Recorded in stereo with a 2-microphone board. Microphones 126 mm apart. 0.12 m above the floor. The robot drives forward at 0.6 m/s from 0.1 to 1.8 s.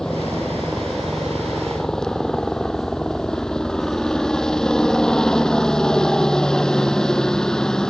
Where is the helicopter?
5° left (ahead or behind).